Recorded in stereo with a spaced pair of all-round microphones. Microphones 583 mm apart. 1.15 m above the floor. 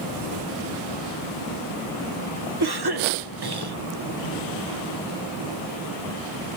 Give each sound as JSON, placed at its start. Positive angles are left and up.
{"t": 2.6, "sound": "a cough", "side_deg": -40, "distance_m": 0.8}